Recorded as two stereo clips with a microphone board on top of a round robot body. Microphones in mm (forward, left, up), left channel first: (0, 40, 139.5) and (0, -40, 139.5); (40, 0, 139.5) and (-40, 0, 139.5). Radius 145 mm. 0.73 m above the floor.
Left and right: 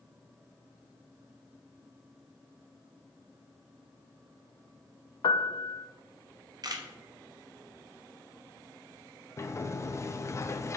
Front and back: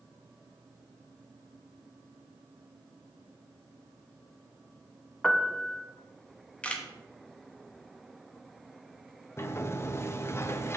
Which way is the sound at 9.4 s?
45° left.